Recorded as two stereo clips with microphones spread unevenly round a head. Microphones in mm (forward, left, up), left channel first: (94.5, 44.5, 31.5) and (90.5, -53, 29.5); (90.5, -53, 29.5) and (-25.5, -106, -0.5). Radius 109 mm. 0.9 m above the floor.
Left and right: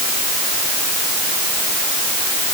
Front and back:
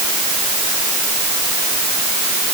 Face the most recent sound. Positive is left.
No sound to turn to.